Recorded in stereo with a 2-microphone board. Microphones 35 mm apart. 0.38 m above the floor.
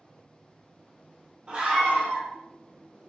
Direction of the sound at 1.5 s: 25° right (ahead or behind).